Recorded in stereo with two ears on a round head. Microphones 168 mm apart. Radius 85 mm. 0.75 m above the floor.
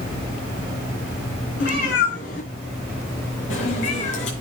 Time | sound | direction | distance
1.6 | a cat meowing | 45° left (ahead or behind) | 4.5 m